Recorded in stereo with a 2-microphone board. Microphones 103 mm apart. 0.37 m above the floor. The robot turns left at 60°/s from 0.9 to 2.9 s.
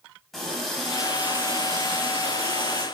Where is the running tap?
5° left, 1.5 m; by 2.9 s 115° right, 1.5 m.